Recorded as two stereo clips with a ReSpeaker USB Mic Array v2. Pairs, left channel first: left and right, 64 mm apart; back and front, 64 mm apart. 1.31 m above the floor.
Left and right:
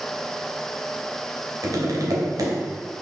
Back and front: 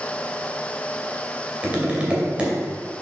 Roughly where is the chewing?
I don't hear chewing.